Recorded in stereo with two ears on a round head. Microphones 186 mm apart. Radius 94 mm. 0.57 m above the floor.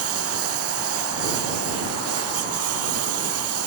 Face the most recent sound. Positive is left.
turn(degrees=-90)